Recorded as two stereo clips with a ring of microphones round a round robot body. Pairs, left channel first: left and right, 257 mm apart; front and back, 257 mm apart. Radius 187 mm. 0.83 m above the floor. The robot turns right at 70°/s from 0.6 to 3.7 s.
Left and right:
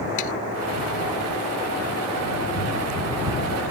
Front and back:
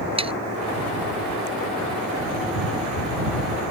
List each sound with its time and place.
0.2 s sawing: 110° left